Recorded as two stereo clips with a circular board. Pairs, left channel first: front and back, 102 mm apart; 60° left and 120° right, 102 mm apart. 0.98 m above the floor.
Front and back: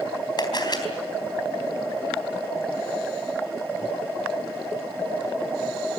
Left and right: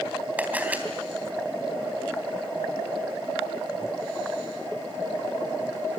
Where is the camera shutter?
45° right, 3.5 m.